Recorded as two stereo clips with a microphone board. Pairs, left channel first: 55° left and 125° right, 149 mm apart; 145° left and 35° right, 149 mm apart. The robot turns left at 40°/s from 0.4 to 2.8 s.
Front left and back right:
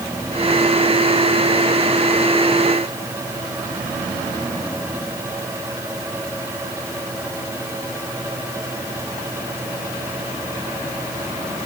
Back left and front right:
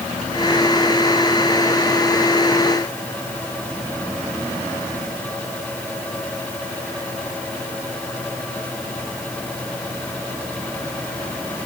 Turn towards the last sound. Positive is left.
No sound to turn to.